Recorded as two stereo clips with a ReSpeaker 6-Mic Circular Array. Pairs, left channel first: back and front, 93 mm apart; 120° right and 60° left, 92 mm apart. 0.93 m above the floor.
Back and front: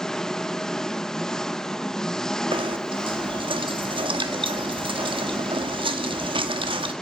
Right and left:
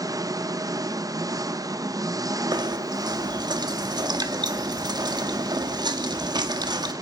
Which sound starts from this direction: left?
An engine running, at 0.0 s.